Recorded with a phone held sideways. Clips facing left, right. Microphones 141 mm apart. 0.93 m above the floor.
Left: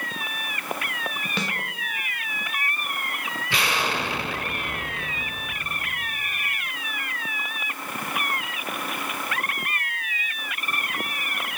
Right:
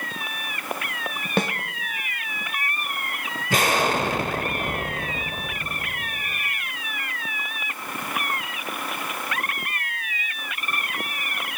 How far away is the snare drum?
About 0.7 m.